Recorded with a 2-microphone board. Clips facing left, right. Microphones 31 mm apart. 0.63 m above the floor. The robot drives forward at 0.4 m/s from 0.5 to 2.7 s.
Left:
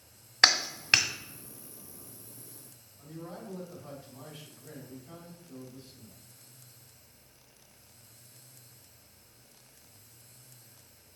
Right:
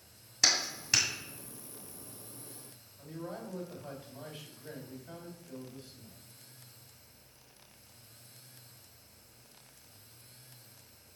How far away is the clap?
About 1.5 m.